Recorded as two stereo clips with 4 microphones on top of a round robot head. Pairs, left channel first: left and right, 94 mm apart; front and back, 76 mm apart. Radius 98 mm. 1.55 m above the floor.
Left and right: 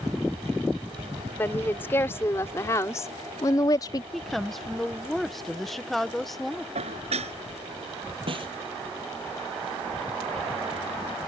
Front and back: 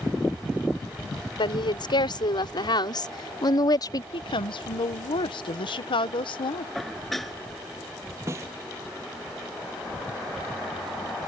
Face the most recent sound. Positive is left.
turn(degrees=-120)